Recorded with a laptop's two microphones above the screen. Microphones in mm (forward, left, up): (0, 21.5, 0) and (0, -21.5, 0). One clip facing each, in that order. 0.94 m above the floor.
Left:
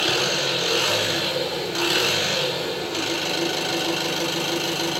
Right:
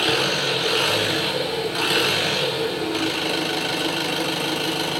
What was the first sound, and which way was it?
An engine running, 10° right (ahead or behind).